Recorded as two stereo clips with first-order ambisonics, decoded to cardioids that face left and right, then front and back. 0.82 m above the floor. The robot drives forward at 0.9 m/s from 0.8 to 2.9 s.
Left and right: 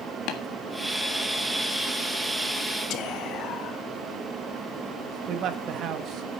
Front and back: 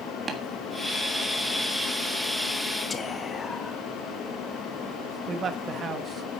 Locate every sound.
0.3 s tapping: 110° left, 1.6 m
2.9 s whispering: 65° left, 1.3 m
5.3 s a man speaking: 120° right, 1.2 m